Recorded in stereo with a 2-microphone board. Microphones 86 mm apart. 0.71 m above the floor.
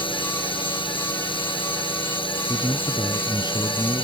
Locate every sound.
0.0 s a drone: 75° left (ahead or behind); by 4.0 s 80° left
2.5 s a man speaking: 50° left (ahead or behind)